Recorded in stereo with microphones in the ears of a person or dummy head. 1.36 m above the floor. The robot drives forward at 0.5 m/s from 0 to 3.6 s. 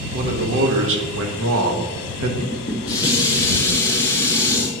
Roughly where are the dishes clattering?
Left.